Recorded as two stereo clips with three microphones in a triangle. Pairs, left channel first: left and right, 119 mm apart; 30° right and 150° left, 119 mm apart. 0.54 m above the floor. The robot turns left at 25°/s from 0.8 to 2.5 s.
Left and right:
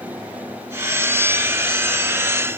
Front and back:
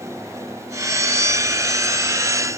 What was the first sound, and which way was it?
Only background noise.